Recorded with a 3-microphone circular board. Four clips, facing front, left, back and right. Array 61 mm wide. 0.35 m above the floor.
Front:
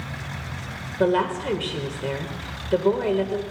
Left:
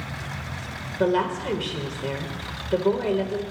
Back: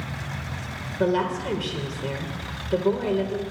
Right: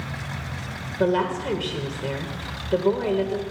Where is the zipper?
I don't hear a zipper.